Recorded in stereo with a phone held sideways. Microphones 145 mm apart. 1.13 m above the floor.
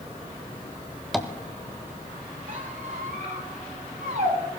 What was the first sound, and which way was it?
Tapping, centre (ahead or behind).